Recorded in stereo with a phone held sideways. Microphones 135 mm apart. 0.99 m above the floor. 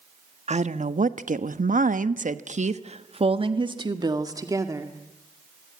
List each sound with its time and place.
0.5 s a woman speaking: 60° right (ahead or behind), 1.4 m; by 4.9 s 20° right (ahead or behind), 2 m